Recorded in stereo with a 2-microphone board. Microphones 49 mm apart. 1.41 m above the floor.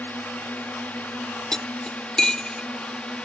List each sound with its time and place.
0.0 s a drone: 35° left (ahead or behind); by 3.3 s 20° left (ahead or behind)
1.5 s cutlery clinking: 15° left (ahead or behind)